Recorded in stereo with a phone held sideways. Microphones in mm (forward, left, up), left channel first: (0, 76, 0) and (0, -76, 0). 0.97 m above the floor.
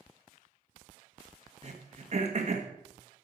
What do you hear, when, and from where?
1.6 s throat clearing: 50° right (ahead or behind), 1.3 m